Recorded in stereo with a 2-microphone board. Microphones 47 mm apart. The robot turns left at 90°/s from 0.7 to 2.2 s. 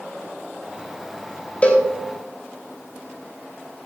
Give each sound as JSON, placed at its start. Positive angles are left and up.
{"t": 1.6, "sound": "a cowbell", "side_deg": 30, "distance_m": 2.0}